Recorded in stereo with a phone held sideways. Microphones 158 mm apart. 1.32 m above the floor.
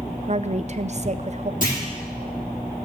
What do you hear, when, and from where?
0.3 s a woman speaking: 45° right (ahead or behind), 0.6 m
1.6 s a clunk: 55° left (ahead or behind), 3.5 m